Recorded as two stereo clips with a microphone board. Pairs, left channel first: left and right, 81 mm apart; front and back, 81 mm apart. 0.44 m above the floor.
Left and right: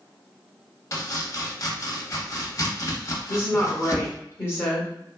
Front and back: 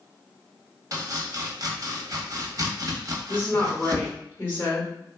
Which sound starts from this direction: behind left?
Chopping, at 0.9 s.